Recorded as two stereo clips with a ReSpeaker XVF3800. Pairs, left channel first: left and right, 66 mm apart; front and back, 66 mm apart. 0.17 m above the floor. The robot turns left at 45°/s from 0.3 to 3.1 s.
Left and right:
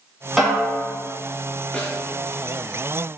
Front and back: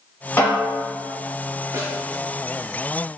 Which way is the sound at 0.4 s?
Straight ahead.